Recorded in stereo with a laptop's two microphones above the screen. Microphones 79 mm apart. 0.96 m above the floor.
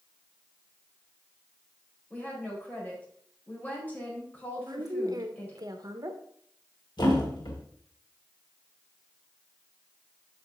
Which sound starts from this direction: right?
A woman speaking, at 4.6 s.